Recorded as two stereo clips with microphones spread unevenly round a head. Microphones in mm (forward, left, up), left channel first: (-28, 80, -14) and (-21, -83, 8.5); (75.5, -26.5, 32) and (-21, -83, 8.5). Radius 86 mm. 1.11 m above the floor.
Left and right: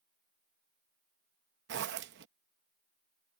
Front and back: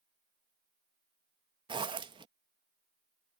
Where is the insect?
I don't hear an insect.